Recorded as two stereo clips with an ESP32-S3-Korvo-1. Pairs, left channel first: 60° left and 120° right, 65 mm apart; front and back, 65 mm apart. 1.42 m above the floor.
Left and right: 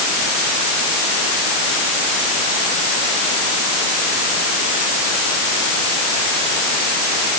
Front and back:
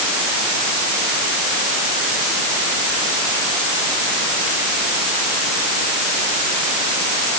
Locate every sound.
Only background noise.